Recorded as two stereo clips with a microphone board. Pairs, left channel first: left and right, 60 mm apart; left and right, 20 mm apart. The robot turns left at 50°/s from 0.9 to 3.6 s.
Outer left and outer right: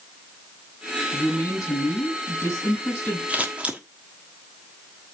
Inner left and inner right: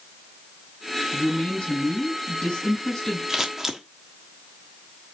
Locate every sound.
1.1 s a woman speaking: 125° left, 4.5 m; by 3.2 s 25° left, 4.5 m
3.3 s scissors: 25° right (ahead or behind), 1.2 m; by 3.8 s 20° right (ahead or behind), 1.2 m